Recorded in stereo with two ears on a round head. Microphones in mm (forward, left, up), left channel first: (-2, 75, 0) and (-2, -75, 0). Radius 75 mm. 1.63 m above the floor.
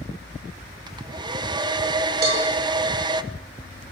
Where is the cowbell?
65° right (ahead or behind), 8.5 m.